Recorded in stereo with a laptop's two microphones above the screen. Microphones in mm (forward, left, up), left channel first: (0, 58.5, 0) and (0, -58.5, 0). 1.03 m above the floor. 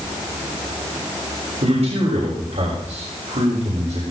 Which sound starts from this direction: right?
A man speaking, at 1.6 s.